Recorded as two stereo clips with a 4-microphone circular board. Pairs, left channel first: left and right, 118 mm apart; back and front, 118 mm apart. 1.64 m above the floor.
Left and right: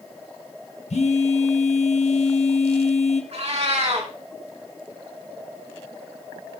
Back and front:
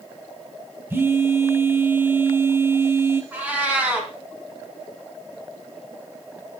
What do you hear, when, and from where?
0.9 s a phone buzzing: 70° left, 1.8 m
3.3 s a cat meowing: 75° right, 3.5 m